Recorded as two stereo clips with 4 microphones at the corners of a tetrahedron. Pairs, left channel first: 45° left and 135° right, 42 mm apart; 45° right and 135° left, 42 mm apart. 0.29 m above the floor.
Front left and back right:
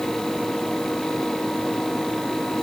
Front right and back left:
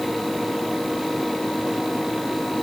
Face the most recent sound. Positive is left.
No sound to turn to.